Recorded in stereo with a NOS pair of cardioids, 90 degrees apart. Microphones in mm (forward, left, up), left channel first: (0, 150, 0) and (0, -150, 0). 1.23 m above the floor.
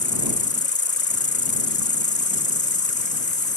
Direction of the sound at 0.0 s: 25° left.